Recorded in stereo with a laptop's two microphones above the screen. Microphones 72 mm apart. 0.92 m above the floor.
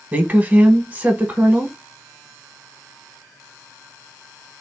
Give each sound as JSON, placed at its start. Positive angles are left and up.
{"t": 0.1, "sound": "a woman speaking", "side_deg": -25, "distance_m": 0.8}